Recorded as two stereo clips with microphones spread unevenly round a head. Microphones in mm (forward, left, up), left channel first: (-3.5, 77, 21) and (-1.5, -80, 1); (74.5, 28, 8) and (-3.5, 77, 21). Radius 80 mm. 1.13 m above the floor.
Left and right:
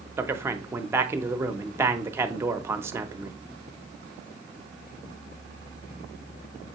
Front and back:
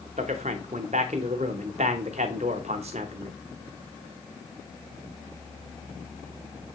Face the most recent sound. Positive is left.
turn(degrees=-165)